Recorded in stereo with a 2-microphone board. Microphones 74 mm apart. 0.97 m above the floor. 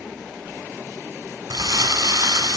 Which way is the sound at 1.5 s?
65° right (ahead or behind).